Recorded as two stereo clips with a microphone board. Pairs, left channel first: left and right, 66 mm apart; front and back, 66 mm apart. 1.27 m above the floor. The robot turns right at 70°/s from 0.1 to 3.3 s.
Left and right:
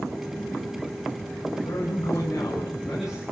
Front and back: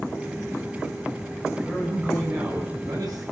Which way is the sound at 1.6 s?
85° left.